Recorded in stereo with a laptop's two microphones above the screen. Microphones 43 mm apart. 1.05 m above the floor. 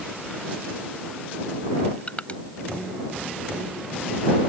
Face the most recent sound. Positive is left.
turn(degrees=30)  # may be behind; listen again after turning